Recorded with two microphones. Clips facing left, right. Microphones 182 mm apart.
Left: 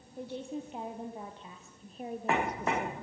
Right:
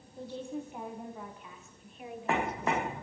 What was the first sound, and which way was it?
A woman speaking, 15° left (ahead or behind).